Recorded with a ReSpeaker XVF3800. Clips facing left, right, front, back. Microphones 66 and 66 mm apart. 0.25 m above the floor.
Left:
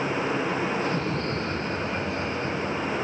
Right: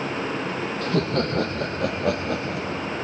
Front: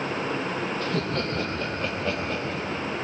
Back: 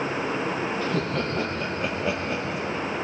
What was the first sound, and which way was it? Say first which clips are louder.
Laughter: right 4 dB, back 1 dB; 95° right.